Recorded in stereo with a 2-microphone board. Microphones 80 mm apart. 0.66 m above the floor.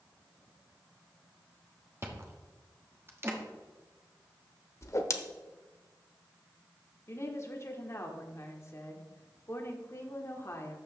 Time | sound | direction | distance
2.0 | chewing | 35° right (ahead or behind) | 1.2 m
4.8 | a whoosh | 40° left (ahead or behind) | 0.8 m
7.1 | a woman speaking | 40° left (ahead or behind) | 1.4 m